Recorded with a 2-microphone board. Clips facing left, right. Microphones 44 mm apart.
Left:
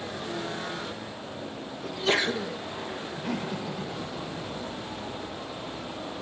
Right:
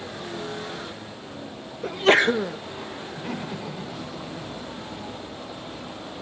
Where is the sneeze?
45° right (ahead or behind), 1.7 m.